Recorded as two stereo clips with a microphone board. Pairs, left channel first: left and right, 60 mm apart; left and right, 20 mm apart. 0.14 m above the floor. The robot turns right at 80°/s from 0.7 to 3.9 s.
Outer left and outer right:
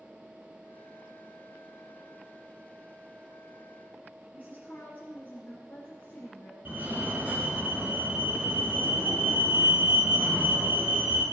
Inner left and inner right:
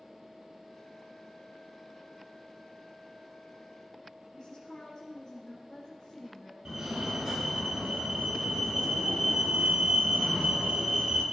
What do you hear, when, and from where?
4.3 s a woman speaking: 30° left (ahead or behind), 2.5 m
6.7 s a fire alarm: 30° right (ahead or behind), 3 m